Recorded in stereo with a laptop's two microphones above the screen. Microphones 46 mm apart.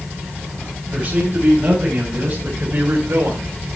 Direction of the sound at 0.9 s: 35° right (ahead or behind).